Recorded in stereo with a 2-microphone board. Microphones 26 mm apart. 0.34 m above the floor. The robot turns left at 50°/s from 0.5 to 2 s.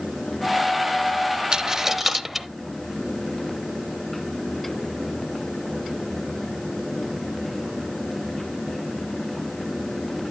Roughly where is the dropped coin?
Right.